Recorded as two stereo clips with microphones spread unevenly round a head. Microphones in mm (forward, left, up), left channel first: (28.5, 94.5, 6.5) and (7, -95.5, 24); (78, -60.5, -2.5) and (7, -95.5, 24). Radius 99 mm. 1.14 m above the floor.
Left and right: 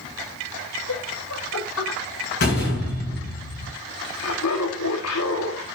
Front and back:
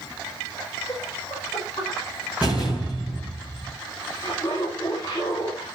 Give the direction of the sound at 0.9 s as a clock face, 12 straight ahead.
9 o'clock.